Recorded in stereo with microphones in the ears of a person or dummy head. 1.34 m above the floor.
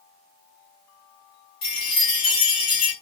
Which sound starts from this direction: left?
A chime, at 1.6 s.